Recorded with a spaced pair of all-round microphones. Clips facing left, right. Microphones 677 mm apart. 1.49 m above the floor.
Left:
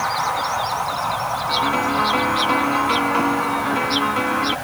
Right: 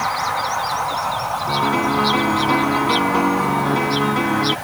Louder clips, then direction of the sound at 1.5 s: Right 3 dB; 65° right (ahead or behind).